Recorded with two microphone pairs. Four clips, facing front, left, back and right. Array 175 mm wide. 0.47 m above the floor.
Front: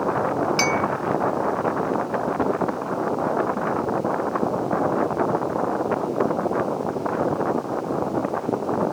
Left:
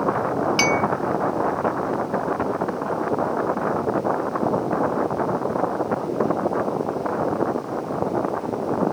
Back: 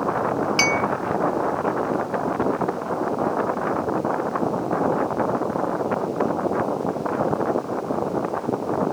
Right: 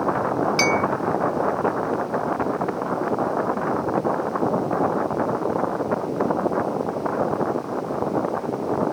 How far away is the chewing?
No chewing in this recording.